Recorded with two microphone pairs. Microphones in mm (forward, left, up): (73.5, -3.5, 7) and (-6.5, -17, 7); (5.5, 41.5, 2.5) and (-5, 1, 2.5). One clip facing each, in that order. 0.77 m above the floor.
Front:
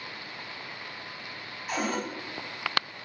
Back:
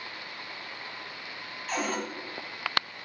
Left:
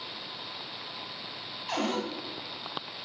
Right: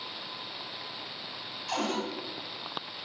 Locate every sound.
1.7 s a cupboard door: 60° left, 0.9 m